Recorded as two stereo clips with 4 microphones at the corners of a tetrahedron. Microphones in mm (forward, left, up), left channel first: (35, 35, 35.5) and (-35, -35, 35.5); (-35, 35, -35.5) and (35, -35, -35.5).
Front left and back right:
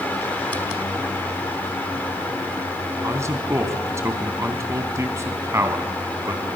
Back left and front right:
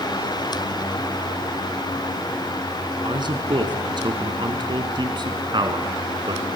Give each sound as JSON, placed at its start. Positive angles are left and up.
{"t": 3.0, "sound": "a man speaking", "azimuth_deg": -75, "distance_m": 2.5}